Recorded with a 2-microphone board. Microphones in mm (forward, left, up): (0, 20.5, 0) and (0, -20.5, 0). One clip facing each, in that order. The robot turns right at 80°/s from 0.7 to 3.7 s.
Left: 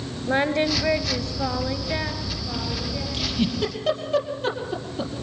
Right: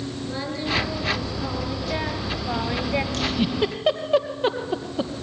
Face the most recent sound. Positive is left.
turn(degrees=-25)  # may be behind; listen again after turning